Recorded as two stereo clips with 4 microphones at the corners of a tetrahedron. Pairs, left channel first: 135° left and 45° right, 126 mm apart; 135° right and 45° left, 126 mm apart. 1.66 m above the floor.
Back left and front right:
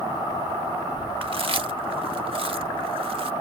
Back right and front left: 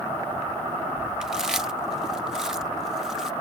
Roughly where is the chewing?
Ahead right.